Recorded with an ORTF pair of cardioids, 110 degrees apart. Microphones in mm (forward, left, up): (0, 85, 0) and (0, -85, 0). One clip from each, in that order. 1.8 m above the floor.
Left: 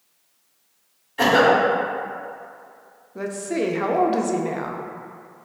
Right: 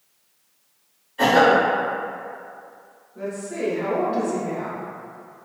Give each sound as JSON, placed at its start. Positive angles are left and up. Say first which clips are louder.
{"t": 1.2, "sound": "a cough", "louder": "even", "azimuth_deg": 40, "distance_m": 1.0}
{"t": 3.1, "sound": "a woman speaking", "louder": "left 3 dB", "azimuth_deg": 55, "distance_m": 0.5}